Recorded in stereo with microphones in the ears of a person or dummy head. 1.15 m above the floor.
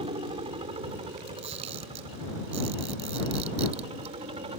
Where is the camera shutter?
30° right (ahead or behind).